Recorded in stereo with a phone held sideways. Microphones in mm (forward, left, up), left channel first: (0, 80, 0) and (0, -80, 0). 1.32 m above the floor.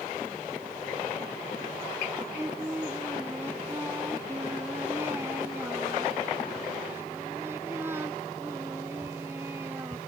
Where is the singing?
15° right (ahead or behind).